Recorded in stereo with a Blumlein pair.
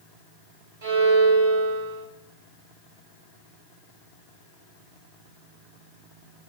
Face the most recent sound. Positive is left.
turn(degrees=-55)